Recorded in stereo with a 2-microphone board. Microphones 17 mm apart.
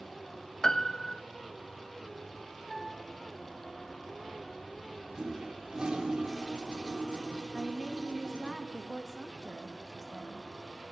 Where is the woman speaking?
5° left (ahead or behind), 1.9 m.